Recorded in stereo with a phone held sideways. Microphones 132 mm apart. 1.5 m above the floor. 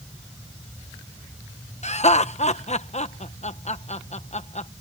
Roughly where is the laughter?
Left.